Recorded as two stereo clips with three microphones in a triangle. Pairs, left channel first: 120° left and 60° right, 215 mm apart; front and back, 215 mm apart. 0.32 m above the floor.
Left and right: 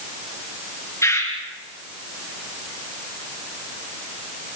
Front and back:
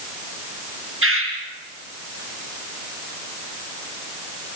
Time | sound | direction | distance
1.0 | a bird | 165° right | 5 m